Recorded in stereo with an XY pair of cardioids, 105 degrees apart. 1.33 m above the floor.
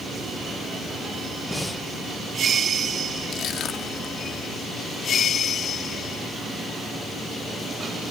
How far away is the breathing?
About 1.1 m.